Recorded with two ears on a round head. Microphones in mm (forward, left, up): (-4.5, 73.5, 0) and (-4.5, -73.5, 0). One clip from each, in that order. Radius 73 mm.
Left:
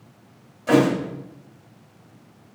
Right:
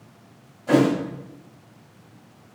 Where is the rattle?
No rattle in this recording.